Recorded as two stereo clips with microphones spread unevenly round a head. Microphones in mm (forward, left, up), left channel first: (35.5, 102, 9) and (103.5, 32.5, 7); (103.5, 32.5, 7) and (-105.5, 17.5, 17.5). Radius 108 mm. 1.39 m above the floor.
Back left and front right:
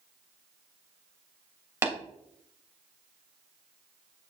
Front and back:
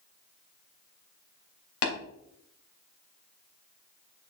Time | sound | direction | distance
1.8 | tapping | 15° left | 3 m